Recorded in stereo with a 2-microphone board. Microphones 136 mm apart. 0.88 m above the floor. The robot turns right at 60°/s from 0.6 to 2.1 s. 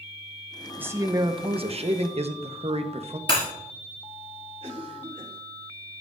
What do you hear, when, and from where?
0.8 s a man speaking: 165° right, 0.8 m; by 3.2 s 85° right, 0.8 m
3.3 s breaking glass: 40° left (ahead or behind), 3.5 m
4.6 s a cough: 50° right (ahead or behind), 3 m